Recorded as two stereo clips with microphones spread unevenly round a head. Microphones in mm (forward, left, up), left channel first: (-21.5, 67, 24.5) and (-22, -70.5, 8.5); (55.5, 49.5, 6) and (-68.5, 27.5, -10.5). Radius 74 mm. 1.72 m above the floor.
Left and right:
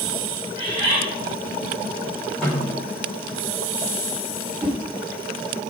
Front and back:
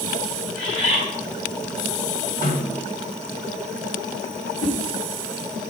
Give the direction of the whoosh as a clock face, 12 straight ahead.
12 o'clock.